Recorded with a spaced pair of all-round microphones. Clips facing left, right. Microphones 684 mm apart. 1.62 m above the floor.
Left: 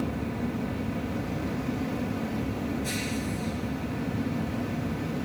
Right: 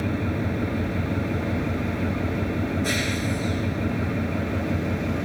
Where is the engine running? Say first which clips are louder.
Right 4 dB; 90° right.